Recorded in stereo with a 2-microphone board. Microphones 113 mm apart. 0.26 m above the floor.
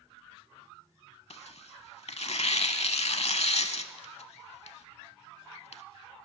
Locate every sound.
1.3 s tearing paper: 65° left (ahead or behind), 0.6 m